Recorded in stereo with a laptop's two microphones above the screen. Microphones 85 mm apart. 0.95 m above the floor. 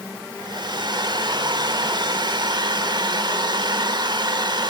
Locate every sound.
0.4 s a hair dryer: 60° right (ahead or behind), 1.1 m